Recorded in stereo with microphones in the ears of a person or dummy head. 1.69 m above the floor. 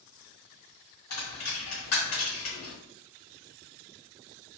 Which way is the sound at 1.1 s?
50° left (ahead or behind).